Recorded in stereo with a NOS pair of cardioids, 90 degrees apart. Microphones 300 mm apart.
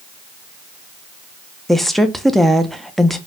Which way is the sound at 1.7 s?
Straight ahead.